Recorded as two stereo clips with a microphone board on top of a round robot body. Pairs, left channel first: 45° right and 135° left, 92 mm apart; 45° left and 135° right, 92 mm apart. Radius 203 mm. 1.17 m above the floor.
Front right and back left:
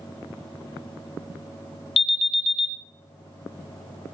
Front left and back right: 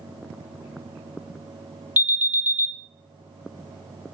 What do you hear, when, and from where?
2.0 s an alarm: 65° right, 1.0 m